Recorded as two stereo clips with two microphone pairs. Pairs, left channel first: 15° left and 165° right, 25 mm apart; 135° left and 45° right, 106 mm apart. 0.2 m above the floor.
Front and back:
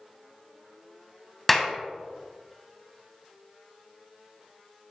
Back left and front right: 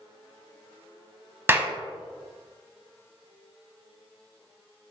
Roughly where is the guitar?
I don't hear a guitar.